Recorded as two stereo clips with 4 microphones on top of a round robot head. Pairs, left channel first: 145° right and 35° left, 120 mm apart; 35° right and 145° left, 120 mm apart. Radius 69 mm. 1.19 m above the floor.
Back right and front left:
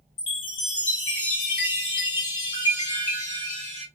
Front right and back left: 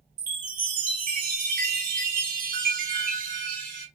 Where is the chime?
165° left, 1.7 m.